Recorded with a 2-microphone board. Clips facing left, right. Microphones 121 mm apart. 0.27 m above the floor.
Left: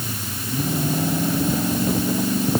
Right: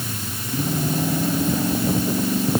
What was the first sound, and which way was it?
Only background noise.